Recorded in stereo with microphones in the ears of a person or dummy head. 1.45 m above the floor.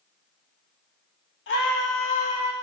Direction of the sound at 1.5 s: 60° left (ahead or behind).